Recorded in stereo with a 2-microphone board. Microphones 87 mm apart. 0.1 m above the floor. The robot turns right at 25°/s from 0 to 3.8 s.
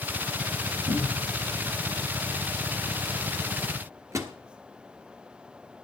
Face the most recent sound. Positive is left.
turn(degrees=-35)  # may be behind; listen again after turning